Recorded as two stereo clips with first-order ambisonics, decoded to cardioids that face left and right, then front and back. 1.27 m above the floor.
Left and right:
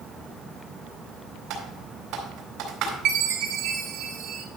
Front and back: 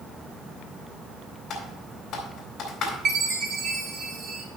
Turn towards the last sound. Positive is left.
turn(degrees=-125)